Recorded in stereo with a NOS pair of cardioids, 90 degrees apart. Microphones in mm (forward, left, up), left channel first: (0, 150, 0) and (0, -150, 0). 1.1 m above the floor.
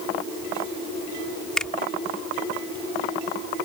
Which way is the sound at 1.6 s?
5° left.